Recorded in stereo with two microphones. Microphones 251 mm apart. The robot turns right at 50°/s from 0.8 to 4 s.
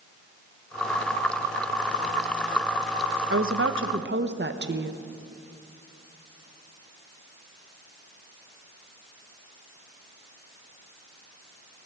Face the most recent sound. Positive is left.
turn(degrees=-55)